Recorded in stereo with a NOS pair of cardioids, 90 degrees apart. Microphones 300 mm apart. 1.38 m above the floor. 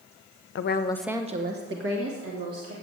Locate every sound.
0.6 s a woman speaking: 50° left, 0.8 m; by 2.7 s 55° right, 2.5 m